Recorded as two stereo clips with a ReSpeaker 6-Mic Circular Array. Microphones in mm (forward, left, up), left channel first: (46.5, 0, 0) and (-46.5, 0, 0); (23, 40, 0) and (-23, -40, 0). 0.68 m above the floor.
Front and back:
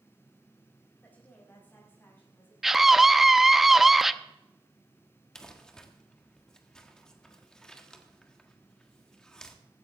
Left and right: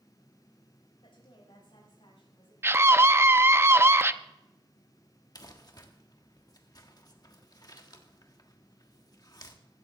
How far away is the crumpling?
About 1.5 m.